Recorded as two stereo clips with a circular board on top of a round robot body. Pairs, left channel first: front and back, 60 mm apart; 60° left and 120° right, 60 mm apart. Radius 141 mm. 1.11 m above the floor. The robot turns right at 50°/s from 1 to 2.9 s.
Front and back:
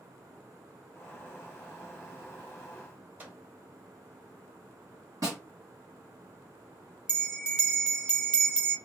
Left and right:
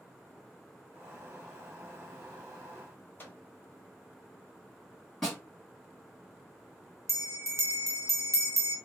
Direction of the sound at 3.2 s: 120° left.